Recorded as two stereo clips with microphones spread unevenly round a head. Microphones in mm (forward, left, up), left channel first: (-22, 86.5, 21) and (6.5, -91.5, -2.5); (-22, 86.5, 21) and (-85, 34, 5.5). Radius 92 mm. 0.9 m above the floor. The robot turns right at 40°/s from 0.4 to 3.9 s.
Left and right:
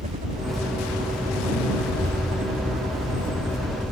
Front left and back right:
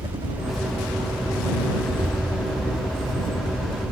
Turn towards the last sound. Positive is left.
turn(degrees=15)